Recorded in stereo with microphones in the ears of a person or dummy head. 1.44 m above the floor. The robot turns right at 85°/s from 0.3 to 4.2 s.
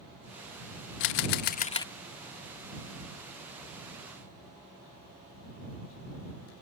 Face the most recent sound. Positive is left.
turn(degrees=-5)